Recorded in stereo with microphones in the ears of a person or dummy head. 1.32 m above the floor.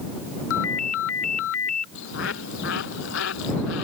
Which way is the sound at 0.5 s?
85° left.